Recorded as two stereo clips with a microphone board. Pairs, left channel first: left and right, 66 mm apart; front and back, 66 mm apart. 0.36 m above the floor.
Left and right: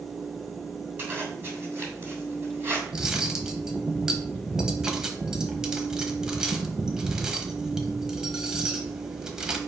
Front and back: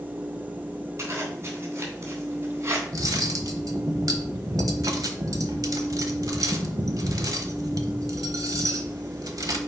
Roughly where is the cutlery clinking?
Behind.